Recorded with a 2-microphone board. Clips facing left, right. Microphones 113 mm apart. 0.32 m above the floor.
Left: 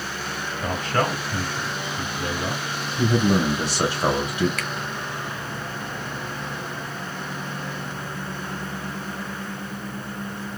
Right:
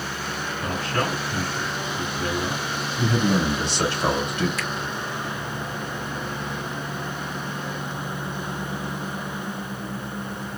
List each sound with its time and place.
0.6 s a man speaking: 25° left (ahead or behind), 2 m
3.0 s a man speaking: 10° left (ahead or behind), 2.5 m
4.6 s a finger snap: 60° left (ahead or behind), 1.2 m